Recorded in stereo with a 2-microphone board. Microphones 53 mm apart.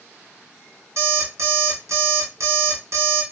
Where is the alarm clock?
70° right (ahead or behind), 1.5 m.